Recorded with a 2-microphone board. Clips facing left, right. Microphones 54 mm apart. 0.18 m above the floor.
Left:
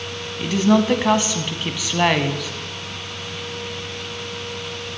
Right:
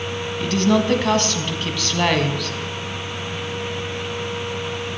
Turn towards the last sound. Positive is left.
turn(degrees=10)  # may be behind; listen again after turning